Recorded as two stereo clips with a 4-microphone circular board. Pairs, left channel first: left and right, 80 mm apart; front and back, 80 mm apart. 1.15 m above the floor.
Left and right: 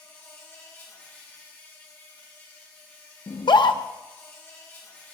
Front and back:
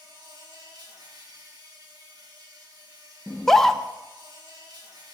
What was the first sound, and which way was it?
An insect, 150° left.